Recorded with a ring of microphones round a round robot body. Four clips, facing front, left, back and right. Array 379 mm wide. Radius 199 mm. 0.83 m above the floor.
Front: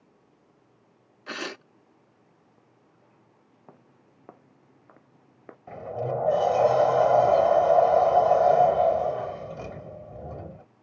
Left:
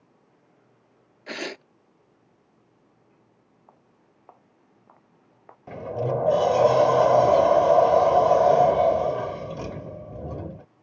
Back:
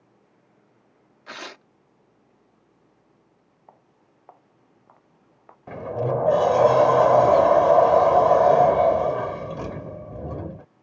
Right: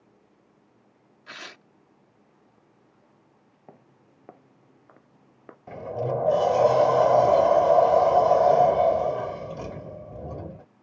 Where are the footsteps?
55° right; by 5.6 s 40° right.